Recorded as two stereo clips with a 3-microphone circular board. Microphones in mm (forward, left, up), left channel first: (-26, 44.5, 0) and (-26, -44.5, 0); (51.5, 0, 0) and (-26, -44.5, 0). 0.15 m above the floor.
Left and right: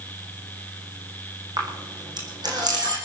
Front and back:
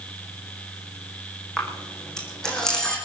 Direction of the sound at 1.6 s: 50° right.